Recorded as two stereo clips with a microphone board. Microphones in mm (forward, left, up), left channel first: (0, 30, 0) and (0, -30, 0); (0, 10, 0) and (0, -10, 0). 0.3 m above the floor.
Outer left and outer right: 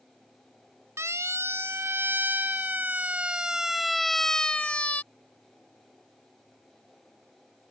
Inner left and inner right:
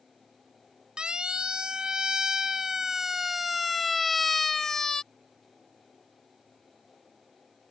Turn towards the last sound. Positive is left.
turn(degrees=30)  # may be behind; listen again after turning